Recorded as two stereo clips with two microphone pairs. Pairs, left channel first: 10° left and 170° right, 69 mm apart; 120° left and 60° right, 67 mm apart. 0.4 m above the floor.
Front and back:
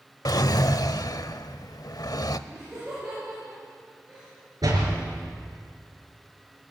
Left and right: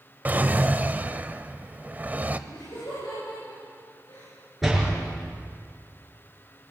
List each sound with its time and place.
0.2 s a drawer: straight ahead, 0.7 m
2.5 s laughter: 115° left, 8.5 m
4.6 s a door slam: 150° right, 5.5 m